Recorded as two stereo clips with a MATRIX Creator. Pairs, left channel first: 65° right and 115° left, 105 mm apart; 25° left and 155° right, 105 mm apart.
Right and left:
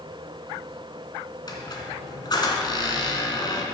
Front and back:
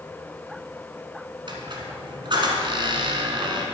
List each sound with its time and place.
1.5 s a squeak: 115° right, 1.3 m